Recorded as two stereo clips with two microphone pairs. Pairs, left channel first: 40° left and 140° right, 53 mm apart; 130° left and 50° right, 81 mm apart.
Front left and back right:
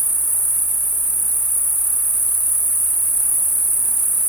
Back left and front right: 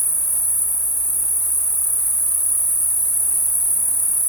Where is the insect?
15° right, 0.8 m.